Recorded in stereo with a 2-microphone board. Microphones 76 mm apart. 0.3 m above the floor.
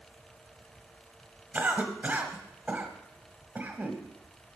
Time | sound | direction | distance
1.5 | a cough | 25° right (ahead or behind) | 1.3 m